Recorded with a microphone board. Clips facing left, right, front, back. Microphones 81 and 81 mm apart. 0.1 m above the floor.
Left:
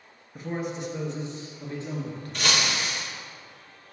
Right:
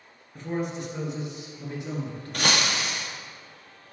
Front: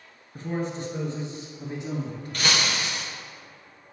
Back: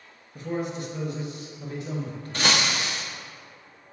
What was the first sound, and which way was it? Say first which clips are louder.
A man speaking: right 1 dB, even; 15° left.